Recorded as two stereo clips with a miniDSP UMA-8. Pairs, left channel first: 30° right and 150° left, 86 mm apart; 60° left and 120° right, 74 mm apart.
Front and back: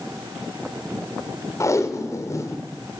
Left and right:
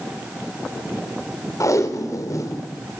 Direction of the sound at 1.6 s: 20° left.